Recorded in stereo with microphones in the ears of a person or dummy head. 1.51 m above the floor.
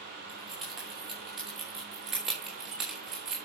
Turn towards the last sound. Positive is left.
turn(degrees=-5)  # may be behind; listen again after turning